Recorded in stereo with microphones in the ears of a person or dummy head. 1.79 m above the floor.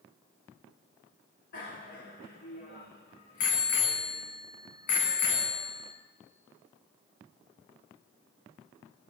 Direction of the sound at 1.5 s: 60° left (ahead or behind).